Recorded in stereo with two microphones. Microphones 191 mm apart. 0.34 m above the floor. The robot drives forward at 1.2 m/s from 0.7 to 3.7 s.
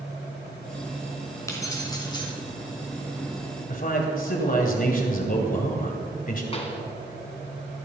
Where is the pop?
30° left (ahead or behind), 1.6 m.